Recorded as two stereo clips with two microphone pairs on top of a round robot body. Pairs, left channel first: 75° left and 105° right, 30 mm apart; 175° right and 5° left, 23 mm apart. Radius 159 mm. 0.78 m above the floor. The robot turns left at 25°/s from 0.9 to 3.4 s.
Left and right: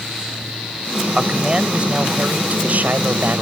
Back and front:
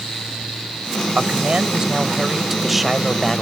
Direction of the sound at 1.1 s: 40° right.